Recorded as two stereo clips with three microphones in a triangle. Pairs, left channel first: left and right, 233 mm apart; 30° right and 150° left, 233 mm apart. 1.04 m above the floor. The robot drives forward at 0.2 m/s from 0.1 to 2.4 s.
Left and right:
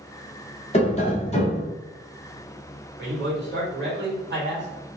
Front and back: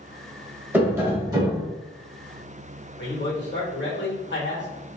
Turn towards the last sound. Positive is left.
turn(degrees=-60)